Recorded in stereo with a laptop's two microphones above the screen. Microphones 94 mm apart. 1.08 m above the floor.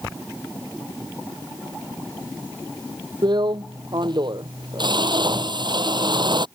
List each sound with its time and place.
3.2 s a drill: 55° right (ahead or behind)